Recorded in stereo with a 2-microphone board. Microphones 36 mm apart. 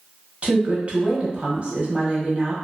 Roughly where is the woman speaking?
Right.